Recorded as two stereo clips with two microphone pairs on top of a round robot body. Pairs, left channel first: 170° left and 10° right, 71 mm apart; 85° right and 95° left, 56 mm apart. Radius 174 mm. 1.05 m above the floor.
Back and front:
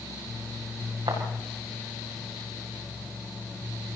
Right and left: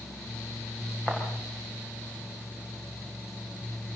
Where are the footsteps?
10° right, 7.5 m.